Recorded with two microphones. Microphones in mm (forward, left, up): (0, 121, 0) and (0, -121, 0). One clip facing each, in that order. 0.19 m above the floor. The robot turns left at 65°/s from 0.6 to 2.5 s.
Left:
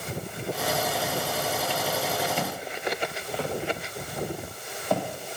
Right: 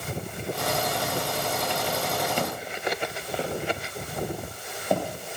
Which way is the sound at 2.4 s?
35° right (ahead or behind).